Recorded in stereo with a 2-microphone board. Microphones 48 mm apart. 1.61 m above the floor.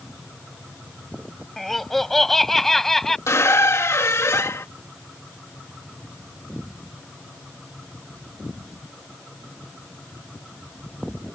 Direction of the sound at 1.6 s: 5° left (ahead or behind).